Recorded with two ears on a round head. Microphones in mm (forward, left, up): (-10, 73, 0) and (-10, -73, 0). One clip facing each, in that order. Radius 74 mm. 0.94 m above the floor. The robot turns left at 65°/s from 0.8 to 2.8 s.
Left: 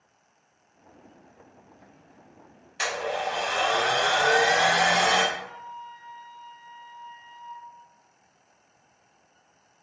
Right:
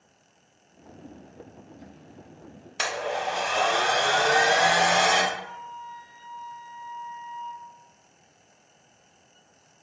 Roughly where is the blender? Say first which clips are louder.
Even; right.